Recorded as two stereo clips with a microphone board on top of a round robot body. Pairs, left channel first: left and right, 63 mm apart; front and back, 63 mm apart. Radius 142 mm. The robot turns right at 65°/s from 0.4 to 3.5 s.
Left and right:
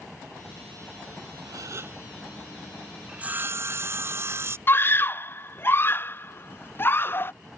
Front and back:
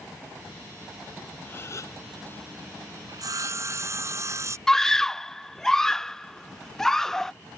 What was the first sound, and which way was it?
A gasp, 65° right.